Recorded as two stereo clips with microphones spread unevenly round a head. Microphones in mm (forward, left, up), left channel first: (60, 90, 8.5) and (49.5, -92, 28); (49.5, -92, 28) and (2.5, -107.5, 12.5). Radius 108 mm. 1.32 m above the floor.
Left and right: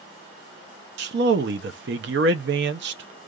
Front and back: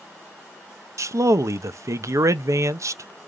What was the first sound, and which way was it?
A man speaking, 140° right.